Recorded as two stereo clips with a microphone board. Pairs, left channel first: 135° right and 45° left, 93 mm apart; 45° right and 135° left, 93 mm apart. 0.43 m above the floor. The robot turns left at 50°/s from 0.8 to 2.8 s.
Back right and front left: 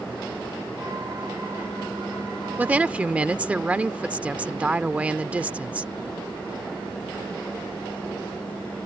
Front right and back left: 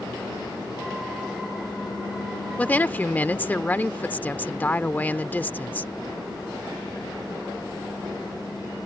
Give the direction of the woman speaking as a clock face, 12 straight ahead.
12 o'clock.